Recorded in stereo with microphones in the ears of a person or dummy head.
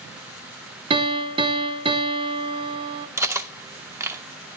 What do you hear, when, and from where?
0.9 s a piano: 25° right (ahead or behind), 0.8 m
3.2 s cutlery clinking: 15° right (ahead or behind), 0.6 m